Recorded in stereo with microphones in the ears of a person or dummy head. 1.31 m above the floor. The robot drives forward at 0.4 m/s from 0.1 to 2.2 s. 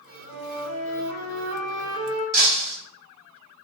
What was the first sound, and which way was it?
A flute, 85° right.